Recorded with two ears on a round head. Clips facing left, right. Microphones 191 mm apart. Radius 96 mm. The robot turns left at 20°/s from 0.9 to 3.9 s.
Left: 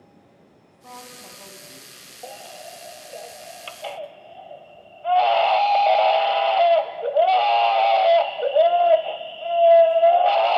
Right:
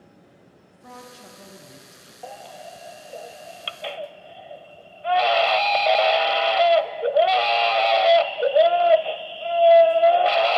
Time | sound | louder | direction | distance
0.7 | a woman speaking | even | 5° right (ahead or behind) | 2.5 m
2.2 | a baby crying | even | 10° left | 0.6 m